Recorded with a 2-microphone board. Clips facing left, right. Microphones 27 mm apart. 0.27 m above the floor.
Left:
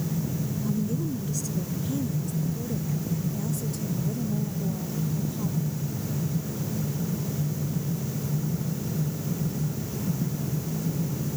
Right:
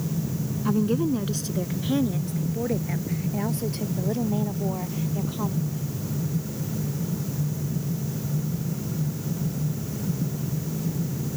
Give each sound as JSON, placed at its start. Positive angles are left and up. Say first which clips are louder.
{"t": 0.7, "sound": "a woman speaking", "louder": "right 8 dB", "side_deg": -50}